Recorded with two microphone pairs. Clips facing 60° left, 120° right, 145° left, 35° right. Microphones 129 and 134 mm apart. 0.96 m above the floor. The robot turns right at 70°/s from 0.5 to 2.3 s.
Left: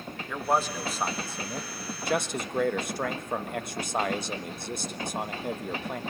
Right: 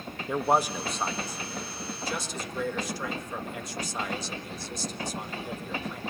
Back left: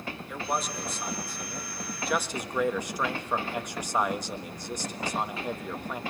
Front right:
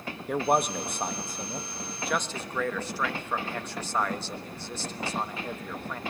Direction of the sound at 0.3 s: 55° right.